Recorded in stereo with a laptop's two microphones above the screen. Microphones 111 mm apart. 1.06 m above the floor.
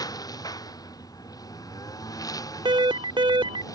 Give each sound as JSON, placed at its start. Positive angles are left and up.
{"t": 0.0, "sound": "a lawn mower", "side_deg": 35}
{"t": 2.6, "sound": "an alarm", "side_deg": -50}